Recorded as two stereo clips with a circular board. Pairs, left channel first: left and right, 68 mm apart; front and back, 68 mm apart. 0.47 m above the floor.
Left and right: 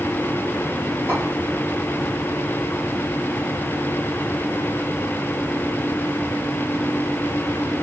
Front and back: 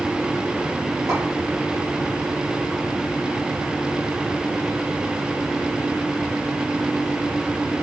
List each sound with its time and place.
1.1 s a clink: 140° right, 6.5 m